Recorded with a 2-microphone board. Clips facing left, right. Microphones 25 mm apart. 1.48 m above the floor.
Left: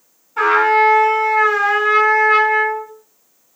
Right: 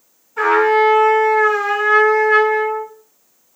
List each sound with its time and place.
0.4 s a trumpet: 30° left (ahead or behind), 2.5 m